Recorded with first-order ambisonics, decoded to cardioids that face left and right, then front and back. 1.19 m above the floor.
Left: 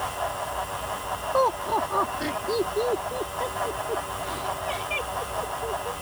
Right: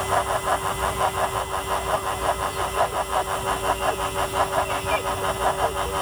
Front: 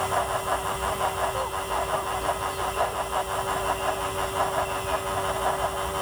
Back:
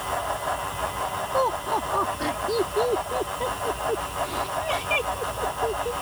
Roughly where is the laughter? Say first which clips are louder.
Left 3 dB, back 4 dB; behind left.